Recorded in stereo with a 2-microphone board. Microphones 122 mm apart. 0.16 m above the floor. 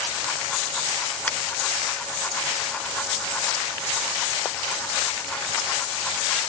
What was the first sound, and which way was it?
A finger snap, 10° left (ahead or behind).